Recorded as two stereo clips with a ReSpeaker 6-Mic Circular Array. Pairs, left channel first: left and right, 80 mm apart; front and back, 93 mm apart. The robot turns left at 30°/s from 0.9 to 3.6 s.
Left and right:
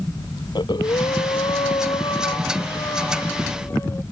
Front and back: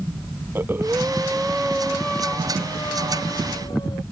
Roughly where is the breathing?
Behind left.